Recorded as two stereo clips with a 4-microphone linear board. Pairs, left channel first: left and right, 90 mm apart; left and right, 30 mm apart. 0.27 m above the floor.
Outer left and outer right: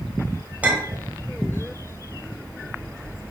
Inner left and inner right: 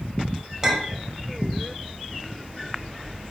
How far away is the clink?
About 0.6 m.